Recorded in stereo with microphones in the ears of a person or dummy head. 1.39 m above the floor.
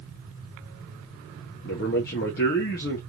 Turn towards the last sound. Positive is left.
turn(degrees=50)  # may be behind; listen again after turning